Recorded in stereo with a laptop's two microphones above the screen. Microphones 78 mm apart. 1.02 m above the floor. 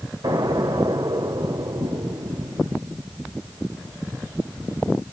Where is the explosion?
75° right (ahead or behind), 2.5 m.